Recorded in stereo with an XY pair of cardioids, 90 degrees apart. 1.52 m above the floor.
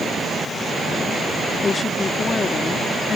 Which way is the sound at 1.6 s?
40° left.